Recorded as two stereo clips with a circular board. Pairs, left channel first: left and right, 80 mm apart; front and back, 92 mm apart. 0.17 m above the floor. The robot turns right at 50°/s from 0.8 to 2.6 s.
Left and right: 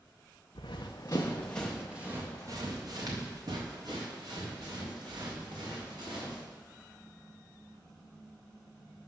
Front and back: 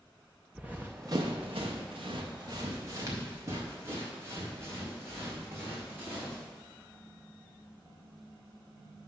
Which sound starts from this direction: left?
Running footsteps, at 0.6 s.